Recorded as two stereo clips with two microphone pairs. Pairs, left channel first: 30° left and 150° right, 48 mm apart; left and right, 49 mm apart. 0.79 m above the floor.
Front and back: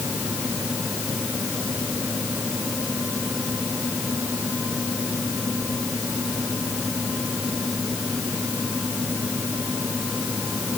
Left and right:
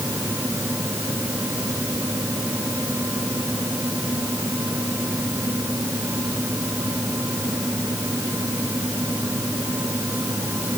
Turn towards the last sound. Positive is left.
No sound to turn to.